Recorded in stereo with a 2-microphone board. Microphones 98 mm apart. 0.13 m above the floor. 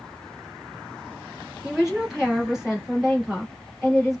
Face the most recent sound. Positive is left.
turn(degrees=-5)  # may be behind; listen again after turning